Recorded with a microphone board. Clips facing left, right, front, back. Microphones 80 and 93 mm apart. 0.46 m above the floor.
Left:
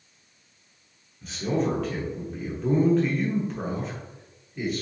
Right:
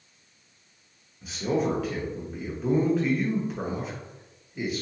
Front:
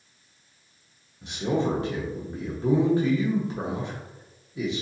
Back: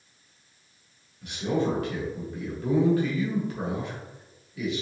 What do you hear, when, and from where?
1.2 s a man speaking: 10° right, 0.9 m